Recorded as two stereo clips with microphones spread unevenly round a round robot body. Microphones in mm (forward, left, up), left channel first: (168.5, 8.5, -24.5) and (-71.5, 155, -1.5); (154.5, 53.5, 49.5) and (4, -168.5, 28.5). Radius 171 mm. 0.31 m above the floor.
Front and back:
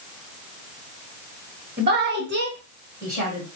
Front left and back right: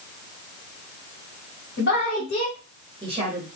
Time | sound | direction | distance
1.8 | a woman speaking | 100° left | 1.5 m